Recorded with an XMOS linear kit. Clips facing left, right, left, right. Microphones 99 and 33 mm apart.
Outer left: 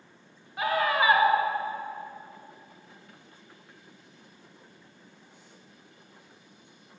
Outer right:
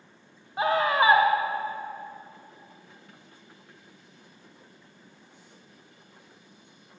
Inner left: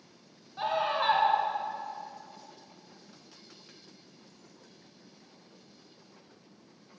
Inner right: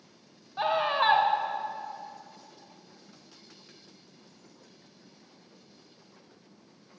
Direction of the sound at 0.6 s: 30° right (ahead or behind).